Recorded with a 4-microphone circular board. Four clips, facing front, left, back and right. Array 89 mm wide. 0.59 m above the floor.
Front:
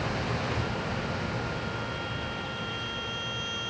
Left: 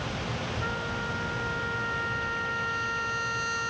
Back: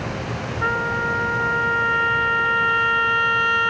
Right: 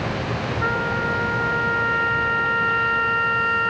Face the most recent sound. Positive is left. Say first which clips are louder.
# right 12 dB, back 11 dB
turn(degrees=-145)